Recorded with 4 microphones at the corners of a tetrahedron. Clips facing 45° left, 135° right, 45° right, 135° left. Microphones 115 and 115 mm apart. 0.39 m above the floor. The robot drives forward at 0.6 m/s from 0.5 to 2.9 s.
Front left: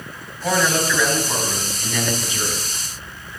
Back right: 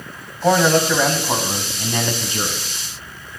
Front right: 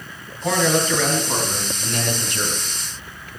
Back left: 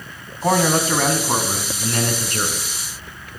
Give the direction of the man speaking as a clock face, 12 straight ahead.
6 o'clock.